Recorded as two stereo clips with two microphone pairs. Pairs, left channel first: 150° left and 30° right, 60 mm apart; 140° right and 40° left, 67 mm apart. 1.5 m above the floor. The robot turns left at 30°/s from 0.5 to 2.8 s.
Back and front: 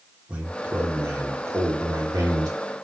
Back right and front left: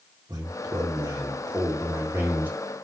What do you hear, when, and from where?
0.3 s a man speaking: 35° left, 2.5 m; by 2.6 s 25° right, 2.5 m